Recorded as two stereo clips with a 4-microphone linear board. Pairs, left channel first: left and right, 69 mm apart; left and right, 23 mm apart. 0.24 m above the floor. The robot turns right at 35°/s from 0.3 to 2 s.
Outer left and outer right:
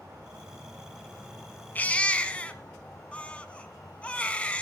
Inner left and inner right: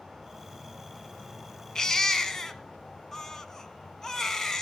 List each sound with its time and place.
0.0 s an insect: 35° right, 8 m; by 4.6 s 25° left, 8 m
1.8 s a baby crying: 25° left (ahead or behind), 1.5 m; by 4.6 s 20° left (ahead or behind), 1.5 m